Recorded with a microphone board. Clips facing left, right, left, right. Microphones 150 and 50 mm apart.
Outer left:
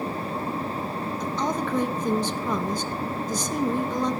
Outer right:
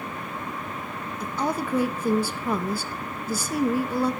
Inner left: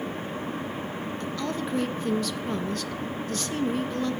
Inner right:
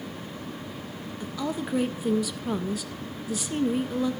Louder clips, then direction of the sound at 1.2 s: Outer right 1 dB, inner right 2 dB; 10° right (ahead or behind).